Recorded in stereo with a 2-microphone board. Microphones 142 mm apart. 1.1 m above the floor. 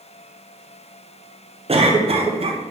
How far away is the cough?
About 0.6 m.